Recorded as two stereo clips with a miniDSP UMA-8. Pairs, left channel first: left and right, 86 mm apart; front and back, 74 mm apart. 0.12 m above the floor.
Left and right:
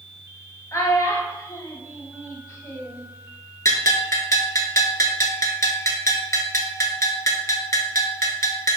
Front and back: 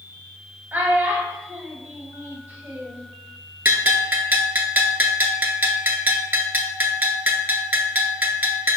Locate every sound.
0.7 s a child speaking: 130° left, 1.1 m
3.6 s a bell: 130° left, 0.6 m